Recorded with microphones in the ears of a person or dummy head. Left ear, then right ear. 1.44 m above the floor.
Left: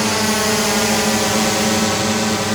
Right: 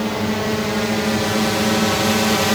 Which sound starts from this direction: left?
A drone, at 0.0 s.